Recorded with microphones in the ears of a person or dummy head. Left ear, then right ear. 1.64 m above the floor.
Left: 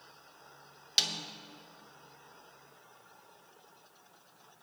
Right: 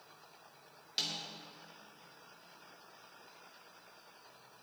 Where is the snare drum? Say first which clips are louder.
Left 7 dB; 25° left (ahead or behind), 1.1 m.